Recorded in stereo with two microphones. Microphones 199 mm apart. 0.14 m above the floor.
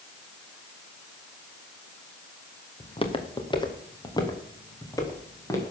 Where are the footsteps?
30° left (ahead or behind), 2 m; by 5.7 s 15° left (ahead or behind), 4.5 m.